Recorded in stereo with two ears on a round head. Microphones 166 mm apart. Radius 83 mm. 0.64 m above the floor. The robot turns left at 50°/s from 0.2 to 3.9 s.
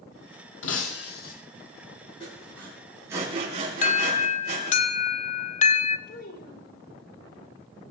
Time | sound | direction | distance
0.6 | breaking glass | 85° left | 2.5 m
2.2 | sawing | 30° left (ahead or behind) | 6.5 m
3.8 | an alarm | 40° left (ahead or behind) | 1.0 m
6.1 | a child speaking | 50° left (ahead or behind) | 2.5 m